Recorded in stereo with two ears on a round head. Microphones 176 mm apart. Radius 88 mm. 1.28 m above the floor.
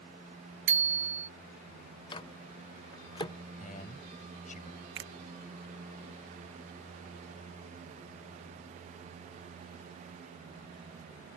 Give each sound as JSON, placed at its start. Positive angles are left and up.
{"t": 0.7, "sound": "a bicycle bell", "side_deg": -65}
{"t": 2.1, "sound": "a microwave", "side_deg": 20}
{"t": 3.5, "sound": "a man speaking", "side_deg": 35}
{"t": 5.0, "sound": "a finger snap", "side_deg": -60}